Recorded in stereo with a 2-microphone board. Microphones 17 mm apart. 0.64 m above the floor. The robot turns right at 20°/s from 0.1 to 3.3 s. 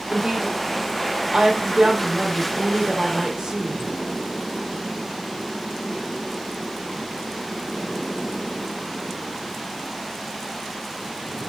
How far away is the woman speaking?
About 2.5 m.